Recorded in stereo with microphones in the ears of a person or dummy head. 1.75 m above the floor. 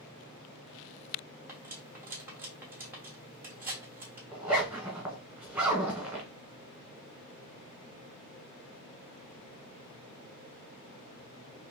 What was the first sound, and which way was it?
Cutlery clinking, 15° right (ahead or behind).